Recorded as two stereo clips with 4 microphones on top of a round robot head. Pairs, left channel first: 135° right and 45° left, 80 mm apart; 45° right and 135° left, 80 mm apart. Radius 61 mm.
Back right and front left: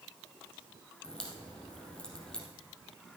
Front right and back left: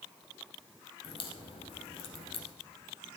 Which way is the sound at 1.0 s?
55° right.